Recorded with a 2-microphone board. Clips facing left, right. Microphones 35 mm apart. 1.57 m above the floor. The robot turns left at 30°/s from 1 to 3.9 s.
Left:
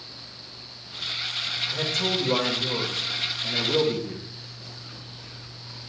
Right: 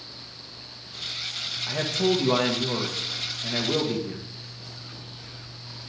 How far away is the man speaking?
About 1.8 m.